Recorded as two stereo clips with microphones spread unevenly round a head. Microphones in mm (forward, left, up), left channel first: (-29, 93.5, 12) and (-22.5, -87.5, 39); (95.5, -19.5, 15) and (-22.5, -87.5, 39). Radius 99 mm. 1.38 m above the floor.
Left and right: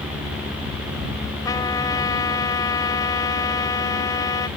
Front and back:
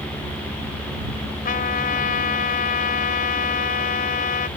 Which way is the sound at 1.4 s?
15° left.